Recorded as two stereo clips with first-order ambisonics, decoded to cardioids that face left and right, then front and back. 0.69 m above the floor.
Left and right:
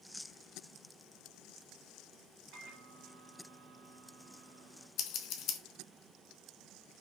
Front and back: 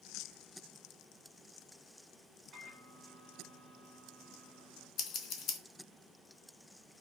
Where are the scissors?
50° left, 0.7 m.